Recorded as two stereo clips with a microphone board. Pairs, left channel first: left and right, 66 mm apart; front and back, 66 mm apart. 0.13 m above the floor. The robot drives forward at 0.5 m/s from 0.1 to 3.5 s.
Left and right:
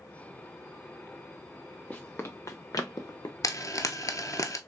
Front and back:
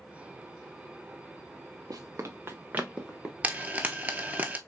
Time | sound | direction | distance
1.9 | running footsteps | 155° left | 0.9 m
3.4 | frying | 115° left | 0.6 m